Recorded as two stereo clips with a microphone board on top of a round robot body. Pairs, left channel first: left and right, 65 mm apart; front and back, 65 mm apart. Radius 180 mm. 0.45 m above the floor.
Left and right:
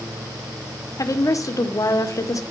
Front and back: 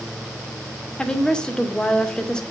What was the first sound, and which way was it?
A woman speaking, 75° left.